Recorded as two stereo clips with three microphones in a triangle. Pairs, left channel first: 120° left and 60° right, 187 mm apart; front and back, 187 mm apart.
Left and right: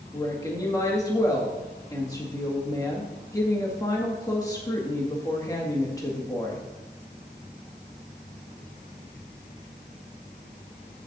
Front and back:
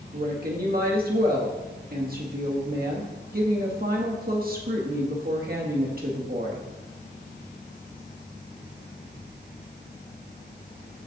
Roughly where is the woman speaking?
Behind.